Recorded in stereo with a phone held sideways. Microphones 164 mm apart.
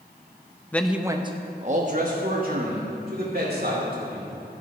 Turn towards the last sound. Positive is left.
turn(degrees=-70)  # may be behind; listen again after turning